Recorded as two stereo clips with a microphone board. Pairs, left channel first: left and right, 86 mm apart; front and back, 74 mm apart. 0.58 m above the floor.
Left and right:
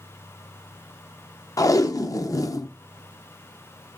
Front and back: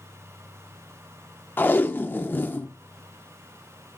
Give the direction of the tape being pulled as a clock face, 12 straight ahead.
10 o'clock.